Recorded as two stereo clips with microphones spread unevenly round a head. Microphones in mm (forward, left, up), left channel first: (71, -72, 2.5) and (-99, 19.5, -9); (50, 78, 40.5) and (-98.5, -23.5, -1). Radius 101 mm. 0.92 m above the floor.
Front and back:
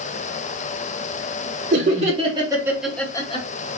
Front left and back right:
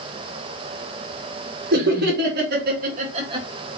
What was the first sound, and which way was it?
Laughter, 160° right.